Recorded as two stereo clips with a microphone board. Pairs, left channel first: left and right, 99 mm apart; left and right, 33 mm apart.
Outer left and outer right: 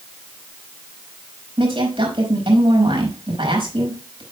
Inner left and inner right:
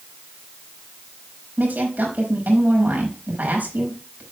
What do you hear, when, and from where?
1.6 s a woman speaking: 60° right (ahead or behind), 5 m